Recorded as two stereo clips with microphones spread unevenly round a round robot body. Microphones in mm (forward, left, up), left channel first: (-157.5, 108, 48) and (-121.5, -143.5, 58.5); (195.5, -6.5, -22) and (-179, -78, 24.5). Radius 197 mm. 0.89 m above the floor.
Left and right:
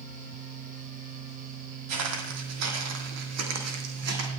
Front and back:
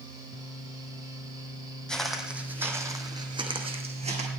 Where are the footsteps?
80° right, 2.5 m; by 4.3 s 100° right, 3.5 m.